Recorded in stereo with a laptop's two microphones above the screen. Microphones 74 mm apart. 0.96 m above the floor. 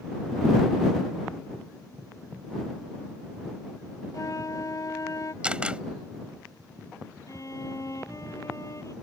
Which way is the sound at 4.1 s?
50° left (ahead or behind).